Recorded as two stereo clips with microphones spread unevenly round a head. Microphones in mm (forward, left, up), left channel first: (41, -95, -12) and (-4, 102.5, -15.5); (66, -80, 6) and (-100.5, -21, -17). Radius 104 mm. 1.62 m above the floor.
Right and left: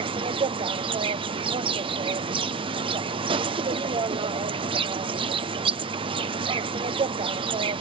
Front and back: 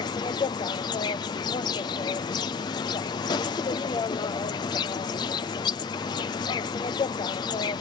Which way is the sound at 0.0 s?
50° left.